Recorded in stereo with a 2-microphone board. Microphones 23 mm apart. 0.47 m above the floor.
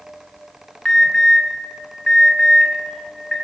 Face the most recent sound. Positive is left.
turn(degrees=35)  # may be behind; listen again after turning